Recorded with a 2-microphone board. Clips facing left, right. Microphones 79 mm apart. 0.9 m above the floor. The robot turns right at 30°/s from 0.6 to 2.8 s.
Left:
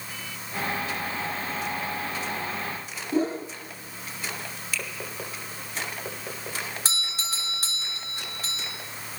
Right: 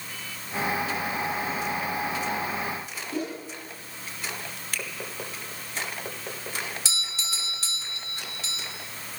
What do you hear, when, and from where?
3.1 s a whoosh: 30° left (ahead or behind), 1.4 m
4.7 s a finger snap: 50° right (ahead or behind), 3 m
6.8 s a doorbell: 45° left (ahead or behind), 2.5 m